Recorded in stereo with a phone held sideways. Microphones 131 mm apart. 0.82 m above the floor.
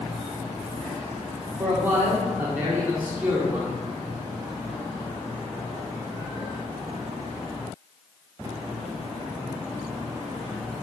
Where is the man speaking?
15° right (ahead or behind), 1.7 m.